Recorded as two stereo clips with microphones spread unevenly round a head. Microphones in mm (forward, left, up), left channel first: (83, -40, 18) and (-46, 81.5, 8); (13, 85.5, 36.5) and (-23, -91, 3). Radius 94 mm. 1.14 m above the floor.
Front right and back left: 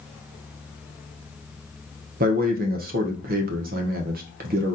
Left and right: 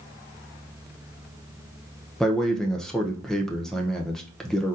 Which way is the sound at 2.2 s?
170° left.